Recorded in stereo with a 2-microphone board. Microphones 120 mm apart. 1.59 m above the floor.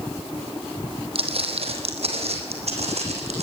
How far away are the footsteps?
About 3 m.